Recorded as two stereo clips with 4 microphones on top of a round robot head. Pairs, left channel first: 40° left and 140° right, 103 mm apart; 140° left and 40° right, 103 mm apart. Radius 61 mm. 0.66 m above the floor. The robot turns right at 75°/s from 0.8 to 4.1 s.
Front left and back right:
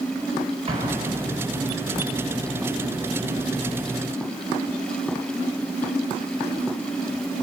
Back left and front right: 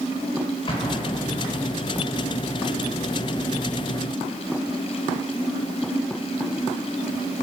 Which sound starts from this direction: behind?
An explosion, at 0.7 s.